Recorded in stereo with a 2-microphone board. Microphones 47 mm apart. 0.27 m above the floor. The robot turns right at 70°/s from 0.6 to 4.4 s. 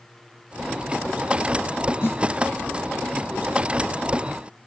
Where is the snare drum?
50° left (ahead or behind), 1.6 m.